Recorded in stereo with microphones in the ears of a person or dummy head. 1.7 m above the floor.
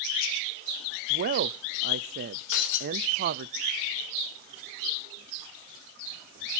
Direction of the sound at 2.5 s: 70° left (ahead or behind).